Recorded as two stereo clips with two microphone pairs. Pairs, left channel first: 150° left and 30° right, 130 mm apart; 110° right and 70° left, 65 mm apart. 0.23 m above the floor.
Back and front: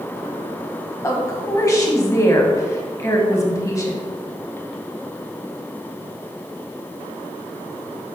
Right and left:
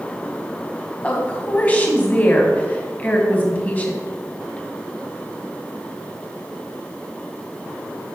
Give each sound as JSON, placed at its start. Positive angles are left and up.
{"t": 1.0, "sound": "a woman speaking", "azimuth_deg": -160, "distance_m": 1.4}